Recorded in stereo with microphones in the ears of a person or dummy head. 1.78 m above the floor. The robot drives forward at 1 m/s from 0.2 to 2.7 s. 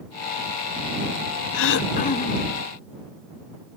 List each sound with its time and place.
1.5 s throat clearing: 75° left (ahead or behind), 0.5 m; by 2.6 s 25° left (ahead or behind), 1.3 m